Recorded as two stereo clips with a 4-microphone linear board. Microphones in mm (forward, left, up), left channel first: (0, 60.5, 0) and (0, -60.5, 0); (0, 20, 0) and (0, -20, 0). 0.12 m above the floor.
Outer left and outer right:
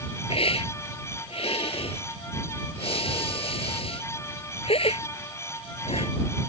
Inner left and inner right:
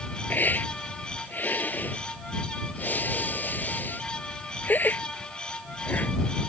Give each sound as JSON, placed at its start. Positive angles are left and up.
{"t": 0.3, "sound": "a hiss", "side_deg": 55}